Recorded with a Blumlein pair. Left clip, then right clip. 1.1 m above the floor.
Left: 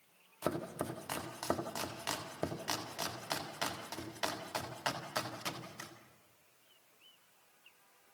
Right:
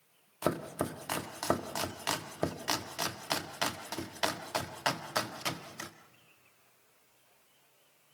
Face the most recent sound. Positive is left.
turn(degrees=-15)